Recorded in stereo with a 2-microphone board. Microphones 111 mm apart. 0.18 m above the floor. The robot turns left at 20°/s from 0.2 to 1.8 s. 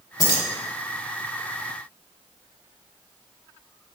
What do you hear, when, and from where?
0.2 s keys jangling: 35° left (ahead or behind), 0.9 m